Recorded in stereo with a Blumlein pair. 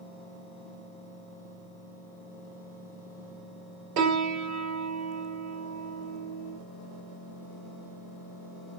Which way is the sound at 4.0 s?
45° right.